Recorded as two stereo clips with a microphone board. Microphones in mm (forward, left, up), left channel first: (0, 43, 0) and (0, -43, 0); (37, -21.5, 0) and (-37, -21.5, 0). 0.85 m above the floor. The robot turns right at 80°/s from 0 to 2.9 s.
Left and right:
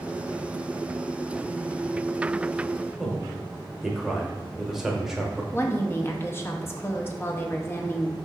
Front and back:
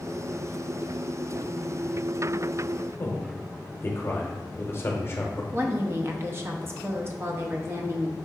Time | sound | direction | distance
3.0 | a man speaking | 10° right | 0.8 m
5.5 | a woman speaking | 140° left | 0.6 m